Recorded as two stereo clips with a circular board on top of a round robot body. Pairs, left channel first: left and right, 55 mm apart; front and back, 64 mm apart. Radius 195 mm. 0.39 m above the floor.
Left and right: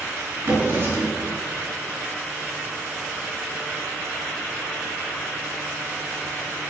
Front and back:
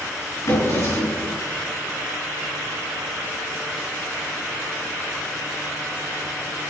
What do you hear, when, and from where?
0.5 s a drawer: 45° right, 4.5 m